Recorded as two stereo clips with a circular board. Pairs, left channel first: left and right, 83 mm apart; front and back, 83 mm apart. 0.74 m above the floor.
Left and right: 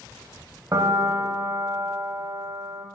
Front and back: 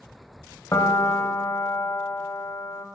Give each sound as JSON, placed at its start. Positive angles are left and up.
{"t": 0.7, "sound": "a piano", "azimuth_deg": -50, "distance_m": 0.8}